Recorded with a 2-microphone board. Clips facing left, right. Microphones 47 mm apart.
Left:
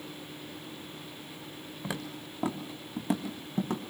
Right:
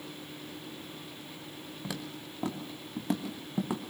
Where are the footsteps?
20° left (ahead or behind), 2.5 m; by 3.8 s 10° right (ahead or behind), 2 m.